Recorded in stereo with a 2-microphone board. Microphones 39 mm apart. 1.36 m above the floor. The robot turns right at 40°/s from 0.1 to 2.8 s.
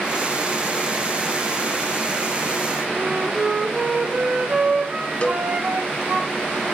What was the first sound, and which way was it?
A flute, 40° right (ahead or behind).